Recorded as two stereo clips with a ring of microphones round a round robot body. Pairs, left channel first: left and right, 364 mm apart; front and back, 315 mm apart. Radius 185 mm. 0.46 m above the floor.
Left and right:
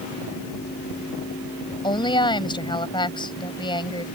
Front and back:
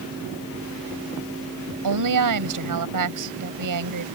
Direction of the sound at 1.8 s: 165° left.